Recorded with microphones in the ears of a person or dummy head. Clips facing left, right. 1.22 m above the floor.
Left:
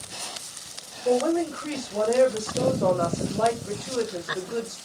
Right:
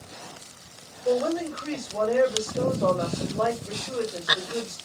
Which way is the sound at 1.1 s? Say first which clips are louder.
Left 2 dB; 25° left (ahead or behind).